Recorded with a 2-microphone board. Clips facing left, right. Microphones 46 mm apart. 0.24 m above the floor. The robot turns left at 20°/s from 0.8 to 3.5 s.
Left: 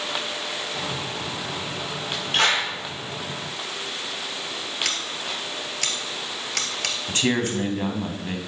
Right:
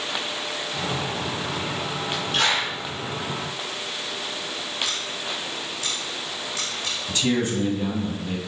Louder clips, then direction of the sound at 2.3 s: Left 2 dB; 40° left (ahead or behind).